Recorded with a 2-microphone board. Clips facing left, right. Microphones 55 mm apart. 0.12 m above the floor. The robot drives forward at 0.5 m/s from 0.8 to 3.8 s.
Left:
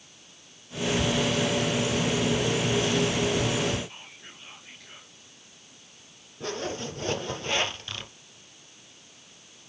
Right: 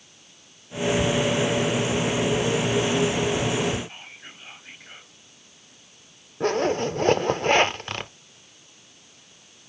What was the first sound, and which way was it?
Whispering, 30° right (ahead or behind).